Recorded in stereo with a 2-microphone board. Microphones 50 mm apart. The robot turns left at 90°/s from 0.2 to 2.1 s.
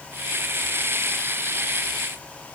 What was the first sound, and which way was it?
Only background noise.